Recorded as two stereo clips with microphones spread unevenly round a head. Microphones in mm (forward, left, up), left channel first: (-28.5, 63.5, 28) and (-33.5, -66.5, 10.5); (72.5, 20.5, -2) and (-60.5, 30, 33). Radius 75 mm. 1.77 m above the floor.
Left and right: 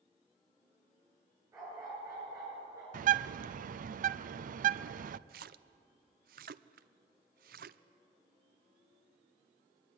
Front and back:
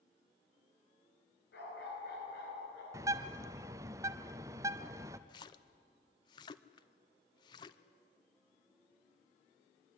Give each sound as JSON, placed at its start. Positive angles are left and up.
{"t": 1.5, "sound": "a dog barking", "azimuth_deg": -15, "distance_m": 10.0}
{"t": 2.9, "sound": "a bird", "azimuth_deg": -115, "distance_m": 0.7}
{"t": 5.3, "sound": "a splash", "azimuth_deg": -75, "distance_m": 0.7}